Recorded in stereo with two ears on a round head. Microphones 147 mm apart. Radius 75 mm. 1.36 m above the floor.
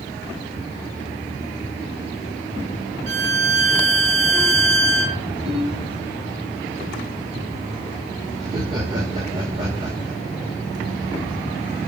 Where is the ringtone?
35° right (ahead or behind), 6 m.